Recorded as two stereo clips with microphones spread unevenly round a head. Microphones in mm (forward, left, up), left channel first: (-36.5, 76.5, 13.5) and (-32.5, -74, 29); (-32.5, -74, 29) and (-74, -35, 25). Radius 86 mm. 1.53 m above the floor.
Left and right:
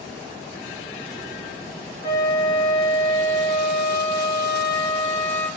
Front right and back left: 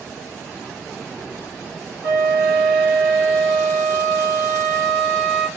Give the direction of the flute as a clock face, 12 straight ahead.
11 o'clock.